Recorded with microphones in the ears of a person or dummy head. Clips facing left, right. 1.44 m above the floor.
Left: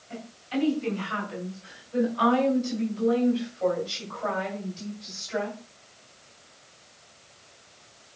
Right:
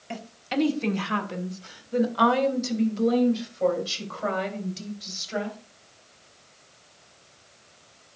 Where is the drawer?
I don't hear a drawer.